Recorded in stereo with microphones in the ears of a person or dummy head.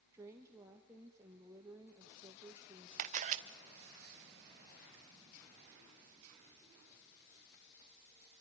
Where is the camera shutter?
45° right (ahead or behind), 1.2 m.